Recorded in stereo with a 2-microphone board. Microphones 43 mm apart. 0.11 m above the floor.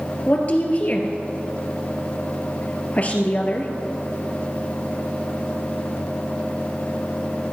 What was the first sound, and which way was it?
A woman speaking, 35° left (ahead or behind).